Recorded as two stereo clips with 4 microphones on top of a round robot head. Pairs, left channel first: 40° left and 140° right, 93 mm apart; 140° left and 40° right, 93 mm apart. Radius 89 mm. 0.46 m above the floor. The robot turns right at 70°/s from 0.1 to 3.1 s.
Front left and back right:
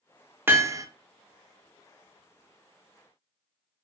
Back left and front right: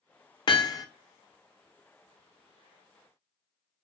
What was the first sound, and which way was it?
Hammering, 160° left.